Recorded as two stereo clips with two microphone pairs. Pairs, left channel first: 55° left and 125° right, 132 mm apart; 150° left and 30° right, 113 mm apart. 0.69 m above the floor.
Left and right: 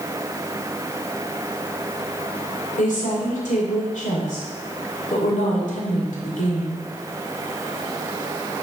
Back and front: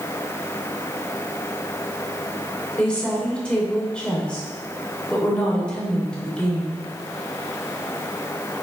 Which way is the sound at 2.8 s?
70° left.